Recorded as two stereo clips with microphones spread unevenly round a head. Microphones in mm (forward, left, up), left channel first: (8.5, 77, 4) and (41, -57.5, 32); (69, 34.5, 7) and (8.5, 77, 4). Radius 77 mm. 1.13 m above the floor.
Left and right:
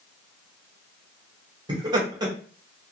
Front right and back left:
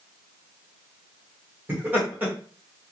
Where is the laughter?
145° right, 1.1 m.